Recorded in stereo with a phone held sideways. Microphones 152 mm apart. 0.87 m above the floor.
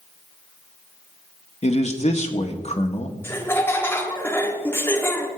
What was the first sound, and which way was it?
A man speaking, 50° left (ahead or behind).